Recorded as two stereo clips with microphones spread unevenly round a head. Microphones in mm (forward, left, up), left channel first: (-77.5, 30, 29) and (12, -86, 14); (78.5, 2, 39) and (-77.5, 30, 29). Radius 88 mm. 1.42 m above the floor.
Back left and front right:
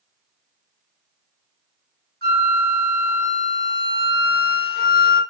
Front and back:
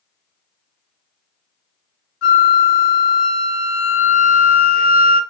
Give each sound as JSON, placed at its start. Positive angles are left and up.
{"t": 2.2, "sound": "a flute", "azimuth_deg": -15, "distance_m": 0.9}